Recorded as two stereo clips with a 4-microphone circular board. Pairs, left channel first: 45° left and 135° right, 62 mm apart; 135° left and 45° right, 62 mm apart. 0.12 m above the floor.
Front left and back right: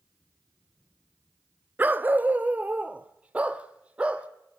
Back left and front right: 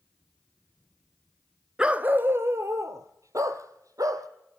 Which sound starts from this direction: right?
A dog barking, at 1.8 s.